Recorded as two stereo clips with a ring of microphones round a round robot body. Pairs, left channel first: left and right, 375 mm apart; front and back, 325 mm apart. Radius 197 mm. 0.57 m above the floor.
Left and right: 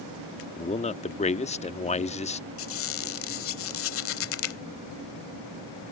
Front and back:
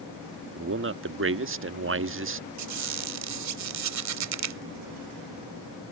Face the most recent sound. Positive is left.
turn(degrees=145)